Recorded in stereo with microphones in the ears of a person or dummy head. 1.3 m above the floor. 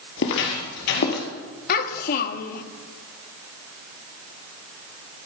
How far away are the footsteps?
About 2 m.